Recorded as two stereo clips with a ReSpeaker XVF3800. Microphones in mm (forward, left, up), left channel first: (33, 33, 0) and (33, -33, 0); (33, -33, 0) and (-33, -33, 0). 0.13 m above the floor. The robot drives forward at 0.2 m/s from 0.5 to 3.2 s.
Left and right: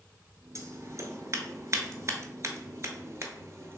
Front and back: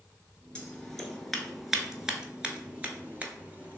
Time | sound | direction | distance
0.6 | scissors | 70° right | 0.8 m